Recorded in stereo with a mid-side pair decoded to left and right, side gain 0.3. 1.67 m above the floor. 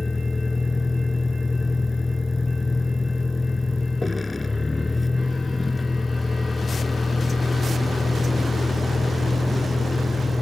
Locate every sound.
0.0 s a vehicle: 30° left